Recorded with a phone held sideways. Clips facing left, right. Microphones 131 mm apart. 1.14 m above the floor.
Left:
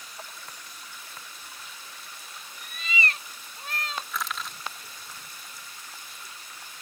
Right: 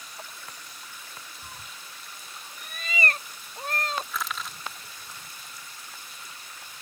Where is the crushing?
Centre (ahead or behind).